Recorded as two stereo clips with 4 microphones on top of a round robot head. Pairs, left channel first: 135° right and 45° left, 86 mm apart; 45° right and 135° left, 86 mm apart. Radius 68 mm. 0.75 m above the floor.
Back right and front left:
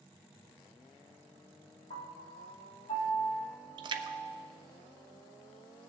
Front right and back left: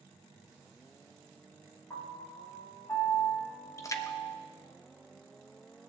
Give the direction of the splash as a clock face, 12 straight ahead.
12 o'clock.